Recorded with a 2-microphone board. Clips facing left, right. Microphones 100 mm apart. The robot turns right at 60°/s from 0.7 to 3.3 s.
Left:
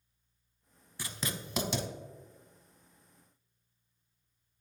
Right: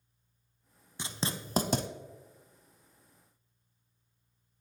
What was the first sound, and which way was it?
Writing, 20° right (ahead or behind).